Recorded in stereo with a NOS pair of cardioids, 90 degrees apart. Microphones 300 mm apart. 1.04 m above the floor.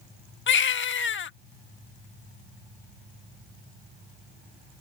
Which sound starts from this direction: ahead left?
A baby crying, at 0.5 s.